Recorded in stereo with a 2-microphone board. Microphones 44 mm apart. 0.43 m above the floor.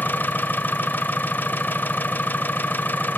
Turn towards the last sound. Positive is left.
turn(degrees=45)  # may be behind; listen again after turning